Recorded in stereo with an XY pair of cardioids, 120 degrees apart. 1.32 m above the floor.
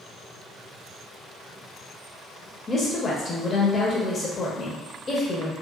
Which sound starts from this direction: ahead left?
A woman speaking, at 2.7 s.